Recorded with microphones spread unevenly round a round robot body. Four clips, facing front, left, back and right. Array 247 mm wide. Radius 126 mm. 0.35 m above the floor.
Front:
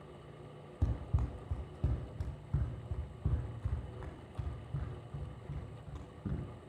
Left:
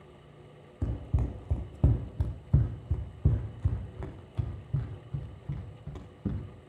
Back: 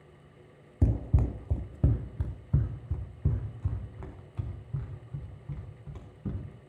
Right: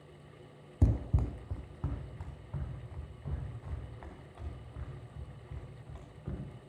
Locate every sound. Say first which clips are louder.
0.8 s running footsteps: right 2 dB, back 10 dB; 155° right, 0.5 m; by 6.4 s 100° left, 3.5 m